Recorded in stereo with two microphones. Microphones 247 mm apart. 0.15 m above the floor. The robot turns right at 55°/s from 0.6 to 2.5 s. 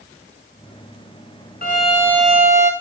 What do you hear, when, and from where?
1.6 s a violin: 145° left, 2 m; by 2.7 s 170° right, 2 m